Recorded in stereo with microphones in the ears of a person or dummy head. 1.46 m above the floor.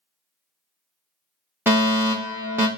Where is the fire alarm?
10° right (ahead or behind), 0.7 m.